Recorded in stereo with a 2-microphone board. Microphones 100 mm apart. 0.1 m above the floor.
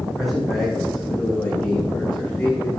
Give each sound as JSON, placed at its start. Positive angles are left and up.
{"t": 0.2, "sound": "a man speaking", "side_deg": 0, "distance_m": 7.0}